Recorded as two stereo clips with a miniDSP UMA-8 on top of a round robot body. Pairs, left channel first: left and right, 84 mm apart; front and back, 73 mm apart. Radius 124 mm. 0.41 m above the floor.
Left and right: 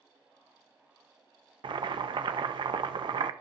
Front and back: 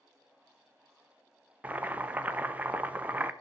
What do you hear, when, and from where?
1.6 s boiling: 110° right, 0.7 m